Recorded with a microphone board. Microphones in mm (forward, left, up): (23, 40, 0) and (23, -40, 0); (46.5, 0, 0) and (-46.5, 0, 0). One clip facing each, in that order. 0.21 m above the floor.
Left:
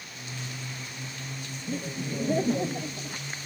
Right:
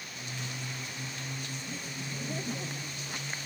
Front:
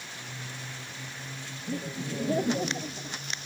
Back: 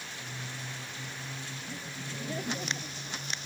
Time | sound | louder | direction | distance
1.7 | laughter | left 7 dB, front 13 dB | 45° left | ?